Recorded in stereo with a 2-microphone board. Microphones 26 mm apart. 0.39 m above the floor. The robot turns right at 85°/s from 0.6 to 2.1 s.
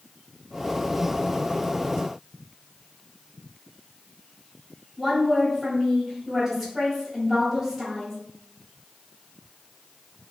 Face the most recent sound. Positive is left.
turn(degrees=-10)  # may be behind; listen again after turning